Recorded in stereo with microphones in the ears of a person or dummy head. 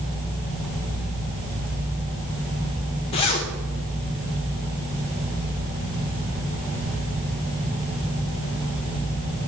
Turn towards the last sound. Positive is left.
turn(degrees=30)  # may be behind; listen again after turning